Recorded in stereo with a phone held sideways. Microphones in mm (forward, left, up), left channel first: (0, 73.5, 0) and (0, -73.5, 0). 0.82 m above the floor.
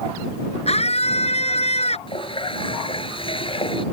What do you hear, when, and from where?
0.7 s a scream: 45° left (ahead or behind)
2.1 s a running tap: 35° left (ahead or behind)